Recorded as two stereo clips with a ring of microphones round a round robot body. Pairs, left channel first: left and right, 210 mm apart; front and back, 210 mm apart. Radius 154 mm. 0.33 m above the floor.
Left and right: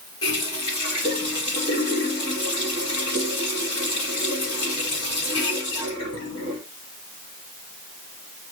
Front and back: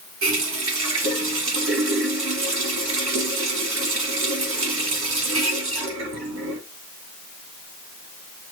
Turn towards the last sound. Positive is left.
turn(degrees=165)